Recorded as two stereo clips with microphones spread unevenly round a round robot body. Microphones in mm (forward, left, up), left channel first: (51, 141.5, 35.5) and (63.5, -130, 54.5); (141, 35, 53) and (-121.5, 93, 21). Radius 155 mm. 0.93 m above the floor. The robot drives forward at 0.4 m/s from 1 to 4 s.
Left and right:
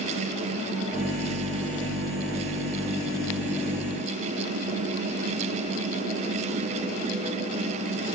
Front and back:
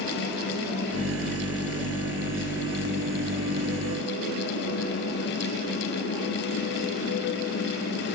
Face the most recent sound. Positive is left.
No sound to turn to.